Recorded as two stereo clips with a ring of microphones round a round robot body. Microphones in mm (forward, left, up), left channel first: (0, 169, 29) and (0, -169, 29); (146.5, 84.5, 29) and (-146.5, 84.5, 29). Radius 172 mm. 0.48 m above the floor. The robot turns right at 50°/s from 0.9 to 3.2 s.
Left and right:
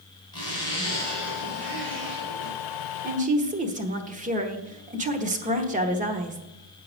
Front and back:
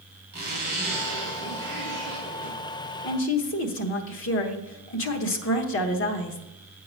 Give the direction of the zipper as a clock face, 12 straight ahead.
6 o'clock.